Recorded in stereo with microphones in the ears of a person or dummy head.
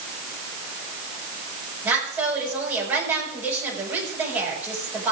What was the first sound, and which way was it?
A woman speaking, 10° right (ahead or behind).